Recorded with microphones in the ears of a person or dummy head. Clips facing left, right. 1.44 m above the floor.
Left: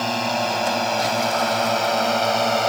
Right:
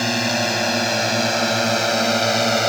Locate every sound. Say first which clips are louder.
0.0 s a drone: right 1 dB; 30° right (ahead or behind)